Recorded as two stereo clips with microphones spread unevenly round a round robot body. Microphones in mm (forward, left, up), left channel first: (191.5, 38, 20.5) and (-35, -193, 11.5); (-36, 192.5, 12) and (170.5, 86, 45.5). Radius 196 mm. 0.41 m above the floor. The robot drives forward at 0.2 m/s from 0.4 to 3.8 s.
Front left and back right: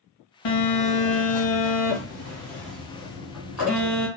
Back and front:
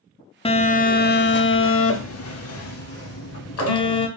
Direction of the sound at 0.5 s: 80° left.